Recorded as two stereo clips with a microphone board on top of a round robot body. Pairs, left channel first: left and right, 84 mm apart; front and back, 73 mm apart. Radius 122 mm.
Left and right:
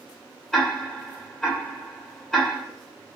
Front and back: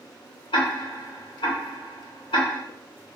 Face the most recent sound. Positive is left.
turn(degrees=5)